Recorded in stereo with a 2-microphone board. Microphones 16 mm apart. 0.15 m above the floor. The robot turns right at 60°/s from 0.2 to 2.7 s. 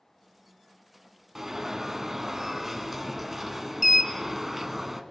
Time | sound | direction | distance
1.4 | an alarm | 20° right (ahead or behind) | 1.3 m